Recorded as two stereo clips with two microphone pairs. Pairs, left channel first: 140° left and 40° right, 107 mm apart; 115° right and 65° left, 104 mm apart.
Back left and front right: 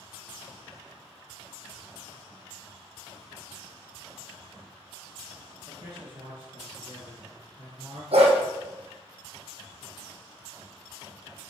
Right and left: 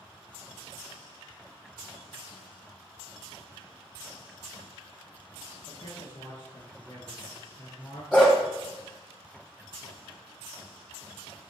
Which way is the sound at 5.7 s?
80° right.